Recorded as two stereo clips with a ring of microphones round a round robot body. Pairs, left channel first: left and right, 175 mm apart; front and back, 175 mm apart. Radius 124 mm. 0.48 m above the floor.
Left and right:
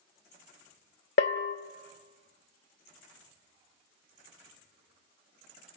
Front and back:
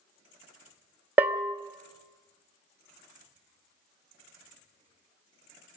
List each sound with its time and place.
1.2 s a bell: 105° left, 1.7 m